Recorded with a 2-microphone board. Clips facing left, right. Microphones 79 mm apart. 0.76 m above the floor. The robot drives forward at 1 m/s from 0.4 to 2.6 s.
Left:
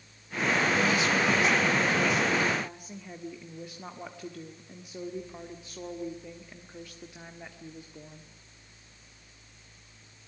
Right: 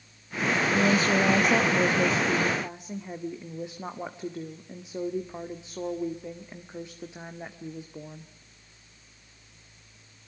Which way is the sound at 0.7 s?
35° right (ahead or behind).